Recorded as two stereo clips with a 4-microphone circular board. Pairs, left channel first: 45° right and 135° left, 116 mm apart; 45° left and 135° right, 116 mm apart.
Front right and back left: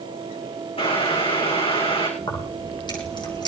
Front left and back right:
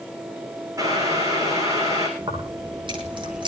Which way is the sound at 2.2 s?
95° right.